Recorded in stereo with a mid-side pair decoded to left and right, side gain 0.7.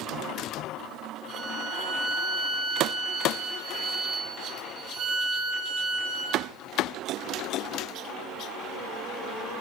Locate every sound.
1.3 s a violin: 35° right, 9.5 m